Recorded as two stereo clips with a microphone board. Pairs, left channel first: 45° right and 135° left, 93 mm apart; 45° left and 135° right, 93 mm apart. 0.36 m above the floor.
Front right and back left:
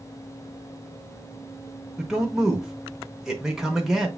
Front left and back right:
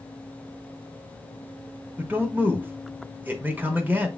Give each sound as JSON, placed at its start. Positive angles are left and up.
{"t": 2.0, "sound": "a man speaking", "azimuth_deg": -145, "distance_m": 0.9}